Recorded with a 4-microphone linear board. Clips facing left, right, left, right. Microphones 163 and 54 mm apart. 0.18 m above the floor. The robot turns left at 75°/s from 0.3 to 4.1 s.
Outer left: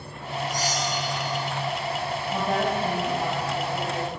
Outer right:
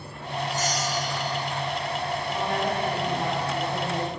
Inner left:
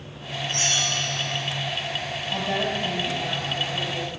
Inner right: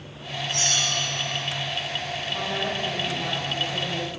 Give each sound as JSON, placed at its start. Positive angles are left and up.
{"t": 0.5, "sound": "a bell", "azimuth_deg": 45, "distance_m": 4.5}
{"t": 2.3, "sound": "a woman speaking", "azimuth_deg": 65, "distance_m": 4.0}